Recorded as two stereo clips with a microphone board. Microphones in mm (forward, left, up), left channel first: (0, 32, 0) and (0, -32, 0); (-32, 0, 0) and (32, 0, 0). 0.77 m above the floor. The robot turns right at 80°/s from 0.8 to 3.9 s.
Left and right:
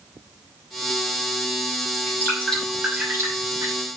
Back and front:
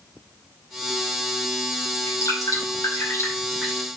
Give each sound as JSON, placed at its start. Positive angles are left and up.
{"t": 1.9, "sound": "dripping", "azimuth_deg": 125, "distance_m": 5.5}